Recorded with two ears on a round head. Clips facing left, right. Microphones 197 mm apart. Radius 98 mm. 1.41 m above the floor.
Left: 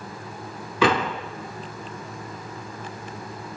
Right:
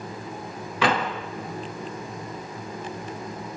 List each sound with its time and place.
0.8 s a door slam: 85° left, 3.5 m